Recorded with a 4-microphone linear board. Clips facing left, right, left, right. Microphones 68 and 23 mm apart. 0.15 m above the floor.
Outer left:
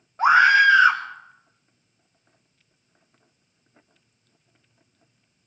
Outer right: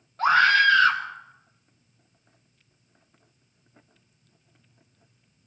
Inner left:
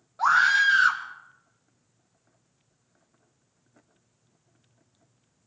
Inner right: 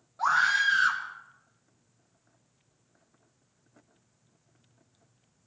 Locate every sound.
0.2 s a scream: 20° left (ahead or behind), 1.5 m